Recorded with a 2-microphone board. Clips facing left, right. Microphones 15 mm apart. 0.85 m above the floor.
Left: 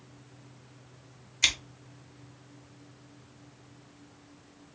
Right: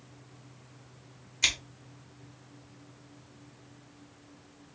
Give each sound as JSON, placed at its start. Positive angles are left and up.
{"t": 1.4, "sound": "scissors", "side_deg": 5, "distance_m": 1.0}